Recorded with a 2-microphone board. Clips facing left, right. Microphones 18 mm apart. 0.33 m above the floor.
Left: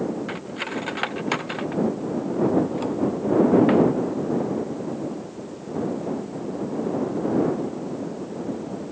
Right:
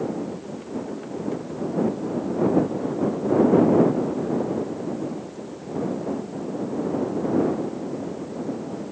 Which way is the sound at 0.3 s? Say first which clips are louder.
Left 3 dB; 60° left (ahead or behind).